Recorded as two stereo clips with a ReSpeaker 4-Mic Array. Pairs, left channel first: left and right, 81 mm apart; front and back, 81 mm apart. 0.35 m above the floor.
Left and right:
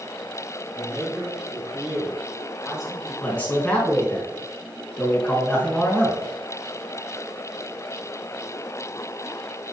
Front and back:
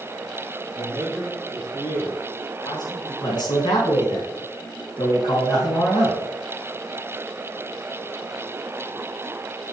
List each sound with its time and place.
0.7 s a man speaking: 50° right, 3 m; by 3.1 s straight ahead, 3 m
3.2 s a man speaking: 15° left, 3.5 m